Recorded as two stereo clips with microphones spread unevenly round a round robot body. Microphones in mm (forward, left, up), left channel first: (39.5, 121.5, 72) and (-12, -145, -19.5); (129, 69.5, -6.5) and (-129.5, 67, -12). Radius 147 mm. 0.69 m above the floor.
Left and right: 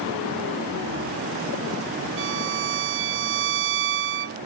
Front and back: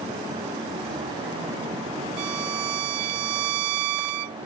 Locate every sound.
2.2 s a violin: 150° right